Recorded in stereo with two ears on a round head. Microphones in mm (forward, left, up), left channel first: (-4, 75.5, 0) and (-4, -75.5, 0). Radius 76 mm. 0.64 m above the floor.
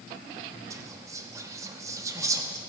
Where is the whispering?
20° right (ahead or behind), 0.9 m.